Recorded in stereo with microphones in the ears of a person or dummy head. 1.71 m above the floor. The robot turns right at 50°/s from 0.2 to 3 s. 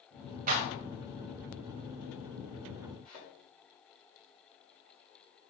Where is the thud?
35° right (ahead or behind), 2 m.